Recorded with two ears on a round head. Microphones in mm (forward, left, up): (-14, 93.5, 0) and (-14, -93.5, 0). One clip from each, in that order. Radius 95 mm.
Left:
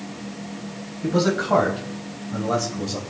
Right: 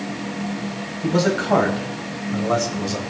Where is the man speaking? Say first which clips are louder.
Right 1 dB; 15° right (ahead or behind), 4.5 m; by 3.0 s 5° right (ahead or behind), 3 m.